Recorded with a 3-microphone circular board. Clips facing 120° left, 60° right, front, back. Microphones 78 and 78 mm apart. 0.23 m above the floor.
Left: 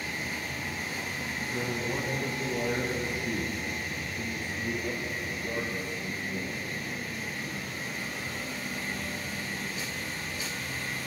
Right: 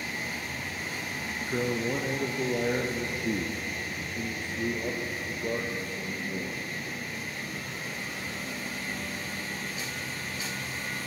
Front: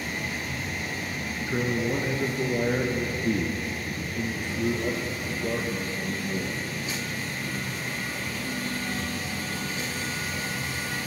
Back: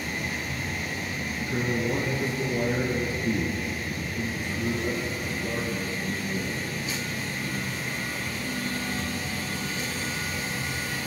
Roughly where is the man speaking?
Ahead right.